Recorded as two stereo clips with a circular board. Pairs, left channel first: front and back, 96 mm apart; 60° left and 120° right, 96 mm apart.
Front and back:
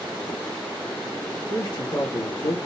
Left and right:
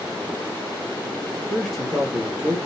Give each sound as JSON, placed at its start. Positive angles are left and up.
{"t": 1.3, "sound": "a man speaking", "azimuth_deg": -20, "distance_m": 2.0}